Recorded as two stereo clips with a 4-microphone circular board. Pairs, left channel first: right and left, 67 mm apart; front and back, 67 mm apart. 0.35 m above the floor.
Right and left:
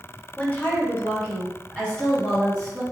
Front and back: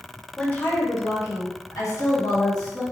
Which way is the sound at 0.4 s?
60° right.